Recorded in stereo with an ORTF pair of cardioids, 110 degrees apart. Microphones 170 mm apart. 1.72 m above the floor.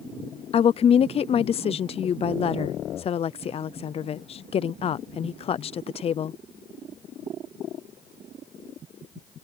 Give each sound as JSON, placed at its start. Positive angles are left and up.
{"t": 0.5, "sound": "a woman speaking", "azimuth_deg": 35}